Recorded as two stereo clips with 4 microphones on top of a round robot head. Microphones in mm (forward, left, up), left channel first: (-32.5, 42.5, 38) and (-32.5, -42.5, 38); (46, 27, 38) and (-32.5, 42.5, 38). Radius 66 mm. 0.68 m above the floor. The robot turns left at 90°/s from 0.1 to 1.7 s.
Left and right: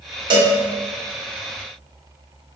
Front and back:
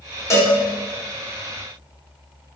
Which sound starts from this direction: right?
A cowbell, at 0.3 s.